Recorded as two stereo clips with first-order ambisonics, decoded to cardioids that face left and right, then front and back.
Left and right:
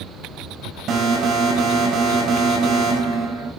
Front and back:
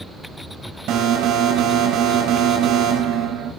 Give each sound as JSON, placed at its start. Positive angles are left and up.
{"t": 0.9, "sound": "an alarm", "azimuth_deg": -140, "distance_m": 5.0}